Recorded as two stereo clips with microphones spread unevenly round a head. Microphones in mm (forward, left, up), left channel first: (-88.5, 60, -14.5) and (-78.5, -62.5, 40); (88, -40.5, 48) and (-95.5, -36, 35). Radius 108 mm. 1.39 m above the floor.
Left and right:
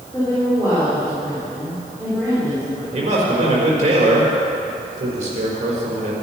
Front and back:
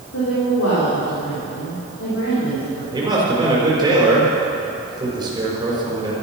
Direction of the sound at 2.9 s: 115° right.